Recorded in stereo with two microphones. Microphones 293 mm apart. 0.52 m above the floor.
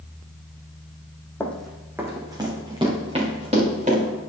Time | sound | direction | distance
1.4 | running footsteps | 5° left (ahead or behind) | 1.3 m